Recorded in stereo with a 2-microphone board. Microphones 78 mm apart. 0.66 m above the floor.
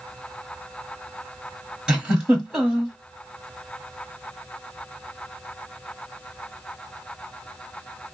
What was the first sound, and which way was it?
A giggle, 10° right (ahead or behind).